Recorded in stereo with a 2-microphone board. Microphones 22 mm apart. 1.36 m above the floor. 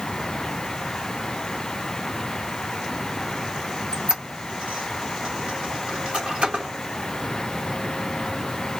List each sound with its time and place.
3.9 s a squeak: 65° right (ahead or behind), 1.6 m